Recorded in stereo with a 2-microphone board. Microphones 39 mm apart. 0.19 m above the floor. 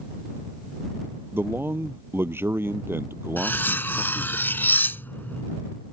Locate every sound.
1.3 s a man speaking: 70° right (ahead or behind); by 4.4 s 75° right (ahead or behind)
3.4 s cutlery clinking: 55° left (ahead or behind)